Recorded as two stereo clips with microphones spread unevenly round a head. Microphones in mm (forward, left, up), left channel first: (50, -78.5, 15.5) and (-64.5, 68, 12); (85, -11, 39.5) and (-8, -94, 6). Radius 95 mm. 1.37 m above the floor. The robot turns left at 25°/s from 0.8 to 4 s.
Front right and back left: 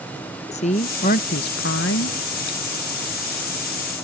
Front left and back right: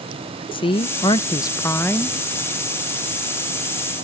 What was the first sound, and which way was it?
A woman speaking, 5° left.